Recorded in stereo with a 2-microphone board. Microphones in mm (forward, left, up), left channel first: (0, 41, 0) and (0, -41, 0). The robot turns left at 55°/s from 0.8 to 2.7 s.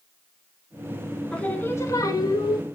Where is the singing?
165° left, 1.4 m; by 2.6 s 95° left, 1.4 m.